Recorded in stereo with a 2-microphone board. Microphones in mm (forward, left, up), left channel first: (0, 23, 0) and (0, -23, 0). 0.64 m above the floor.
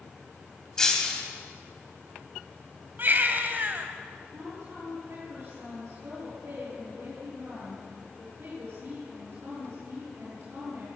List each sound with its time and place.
0.8 s breaking glass: 10° left (ahead or behind), 3 m
3.0 s a baby crying: 45° right (ahead or behind), 2 m
4.3 s a woman speaking: 45° right (ahead or behind), 9 m